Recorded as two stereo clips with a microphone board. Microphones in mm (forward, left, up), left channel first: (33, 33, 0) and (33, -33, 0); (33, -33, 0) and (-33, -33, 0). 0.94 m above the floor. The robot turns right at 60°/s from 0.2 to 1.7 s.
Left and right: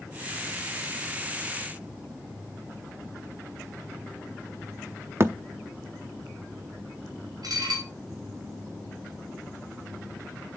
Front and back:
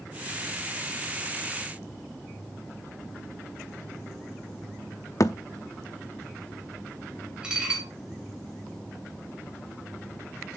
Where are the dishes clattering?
105° right, 3 m.